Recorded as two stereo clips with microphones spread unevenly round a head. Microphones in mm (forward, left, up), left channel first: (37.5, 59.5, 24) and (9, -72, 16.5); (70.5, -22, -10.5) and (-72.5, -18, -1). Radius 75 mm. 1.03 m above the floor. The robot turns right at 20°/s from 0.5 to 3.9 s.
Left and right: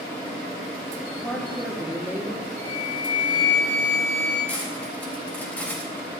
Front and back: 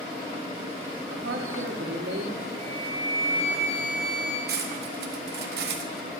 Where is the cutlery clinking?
160° left, 0.9 m.